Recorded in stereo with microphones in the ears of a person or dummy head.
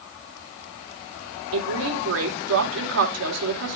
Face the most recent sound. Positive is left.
turn(degrees=-80)